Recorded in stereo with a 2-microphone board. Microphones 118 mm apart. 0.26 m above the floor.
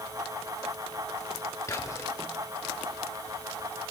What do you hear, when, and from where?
1.7 s whispering: 30° left (ahead or behind), 1.2 m